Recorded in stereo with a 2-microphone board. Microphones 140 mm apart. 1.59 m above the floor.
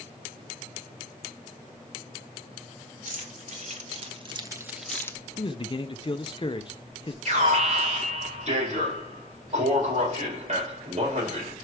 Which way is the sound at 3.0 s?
60° right (ahead or behind).